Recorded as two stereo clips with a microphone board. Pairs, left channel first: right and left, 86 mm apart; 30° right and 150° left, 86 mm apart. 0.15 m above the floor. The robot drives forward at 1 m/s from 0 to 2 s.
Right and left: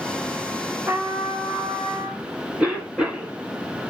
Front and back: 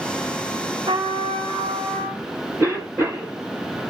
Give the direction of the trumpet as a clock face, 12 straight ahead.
7 o'clock.